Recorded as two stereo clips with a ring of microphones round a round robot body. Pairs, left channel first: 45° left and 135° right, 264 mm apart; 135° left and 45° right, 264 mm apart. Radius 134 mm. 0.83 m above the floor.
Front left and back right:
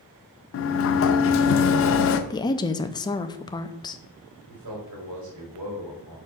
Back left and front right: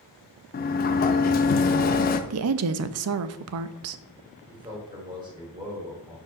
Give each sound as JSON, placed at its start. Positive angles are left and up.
{"t": 0.5, "sound": "a sliding door", "azimuth_deg": 80, "distance_m": 0.6}
{"t": 2.3, "sound": "a woman speaking", "azimuth_deg": -30, "distance_m": 0.5}
{"t": 4.5, "sound": "a man speaking", "azimuth_deg": -120, "distance_m": 3.0}